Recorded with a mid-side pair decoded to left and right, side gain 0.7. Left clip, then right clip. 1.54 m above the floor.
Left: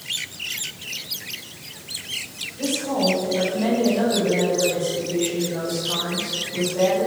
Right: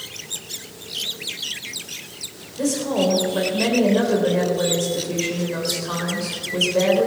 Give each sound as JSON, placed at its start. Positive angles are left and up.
{"t": 2.6, "sound": "a woman speaking", "azimuth_deg": -45, "distance_m": 7.5}